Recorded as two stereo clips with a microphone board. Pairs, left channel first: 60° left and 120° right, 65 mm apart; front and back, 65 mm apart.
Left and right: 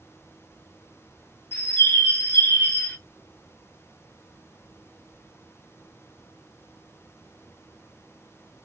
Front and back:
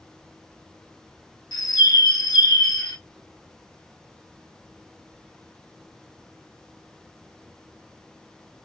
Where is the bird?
Straight ahead, 0.6 m.